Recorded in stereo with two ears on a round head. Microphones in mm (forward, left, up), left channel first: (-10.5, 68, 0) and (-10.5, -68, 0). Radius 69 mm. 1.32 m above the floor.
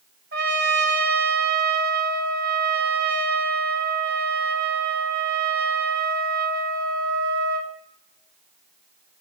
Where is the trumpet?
70° right (ahead or behind), 1.4 m.